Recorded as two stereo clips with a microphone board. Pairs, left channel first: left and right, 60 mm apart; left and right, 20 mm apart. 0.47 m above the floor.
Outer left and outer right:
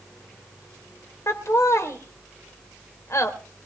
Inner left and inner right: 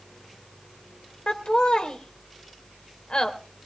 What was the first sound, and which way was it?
Laughter, 50° left (ahead or behind).